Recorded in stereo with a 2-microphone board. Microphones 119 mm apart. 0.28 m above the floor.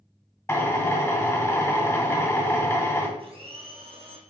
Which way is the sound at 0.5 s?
25° left (ahead or behind).